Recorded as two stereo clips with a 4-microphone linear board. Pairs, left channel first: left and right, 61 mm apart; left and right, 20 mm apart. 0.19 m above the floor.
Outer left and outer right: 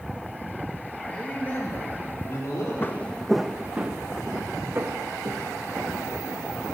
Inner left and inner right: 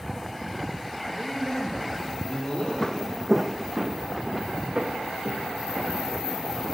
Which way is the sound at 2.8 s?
40° left (ahead or behind).